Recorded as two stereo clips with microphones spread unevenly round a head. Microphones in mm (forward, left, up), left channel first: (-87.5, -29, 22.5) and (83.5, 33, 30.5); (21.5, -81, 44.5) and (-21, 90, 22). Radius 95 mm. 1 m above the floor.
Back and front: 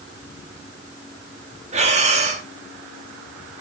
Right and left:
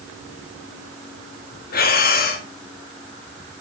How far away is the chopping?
I don't hear chopping.